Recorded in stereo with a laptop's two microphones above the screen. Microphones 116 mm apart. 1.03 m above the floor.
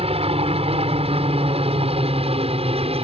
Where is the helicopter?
60° right (ahead or behind).